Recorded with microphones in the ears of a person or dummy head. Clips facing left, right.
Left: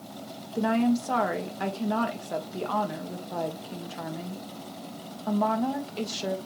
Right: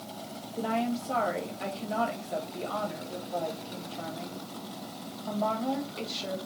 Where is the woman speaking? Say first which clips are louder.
Left 6 dB; 65° left (ahead or behind), 1.9 m.